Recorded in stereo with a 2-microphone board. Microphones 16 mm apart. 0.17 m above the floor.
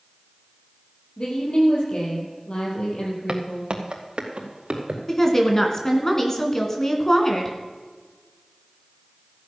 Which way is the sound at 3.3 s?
70° right (ahead or behind).